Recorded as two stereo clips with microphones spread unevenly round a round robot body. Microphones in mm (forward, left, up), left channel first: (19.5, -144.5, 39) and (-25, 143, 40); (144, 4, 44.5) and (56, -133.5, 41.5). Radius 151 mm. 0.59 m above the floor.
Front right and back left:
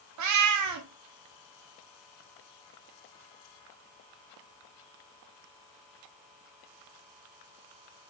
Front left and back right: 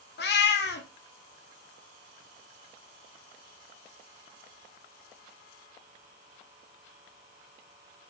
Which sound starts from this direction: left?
A cat meowing, at 0.2 s.